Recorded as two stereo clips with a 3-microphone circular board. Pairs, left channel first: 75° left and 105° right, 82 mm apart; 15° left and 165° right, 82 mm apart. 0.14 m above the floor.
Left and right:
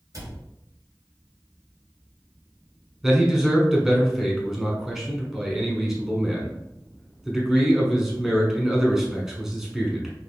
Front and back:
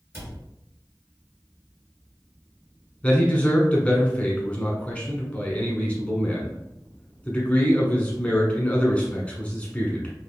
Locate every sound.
0.1 s a cupboard door: 120° right, 2.5 m
3.0 s a man speaking: 25° right, 1.3 m